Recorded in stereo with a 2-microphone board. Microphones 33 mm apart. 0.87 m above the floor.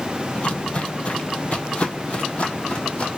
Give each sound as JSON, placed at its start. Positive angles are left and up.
{"t": 0.3, "sound": "footsteps", "side_deg": 35, "distance_m": 1.1}